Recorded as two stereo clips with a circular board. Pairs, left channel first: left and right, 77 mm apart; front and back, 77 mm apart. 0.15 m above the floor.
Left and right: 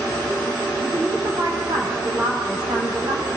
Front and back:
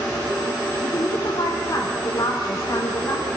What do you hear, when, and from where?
0.8 s a woman speaking: 55° right, 9 m